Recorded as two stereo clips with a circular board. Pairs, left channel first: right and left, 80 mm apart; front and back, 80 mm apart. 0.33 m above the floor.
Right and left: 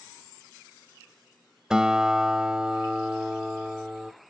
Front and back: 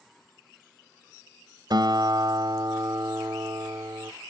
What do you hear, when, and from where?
1.7 s a guitar: 170° left, 0.5 m